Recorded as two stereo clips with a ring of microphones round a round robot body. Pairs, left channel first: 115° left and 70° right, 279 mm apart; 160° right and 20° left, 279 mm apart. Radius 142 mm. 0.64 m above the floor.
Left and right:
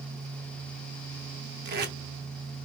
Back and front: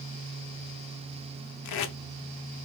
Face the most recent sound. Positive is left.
turn(degrees=-125)